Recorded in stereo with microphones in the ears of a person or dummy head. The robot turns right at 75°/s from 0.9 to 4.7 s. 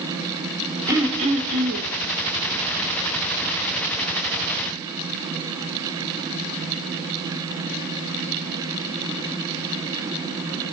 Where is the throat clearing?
160° right, 1.4 m; by 1.9 s 85° right, 1.4 m.